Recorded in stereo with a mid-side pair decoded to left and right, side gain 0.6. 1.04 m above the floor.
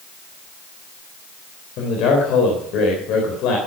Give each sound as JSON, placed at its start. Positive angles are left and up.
{"t": 1.8, "sound": "a man speaking", "azimuth_deg": 65, "distance_m": 3.5}